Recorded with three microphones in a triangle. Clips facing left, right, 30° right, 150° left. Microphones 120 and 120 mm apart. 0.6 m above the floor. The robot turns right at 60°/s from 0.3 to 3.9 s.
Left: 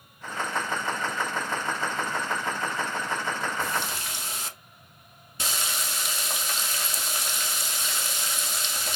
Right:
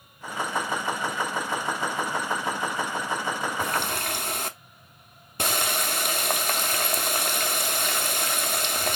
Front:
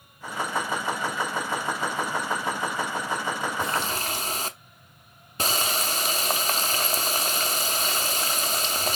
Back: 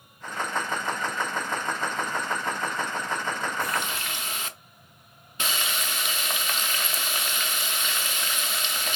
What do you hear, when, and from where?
3.6 s a running tap: 95° right, 0.5 m; by 9.0 s 75° right, 0.5 m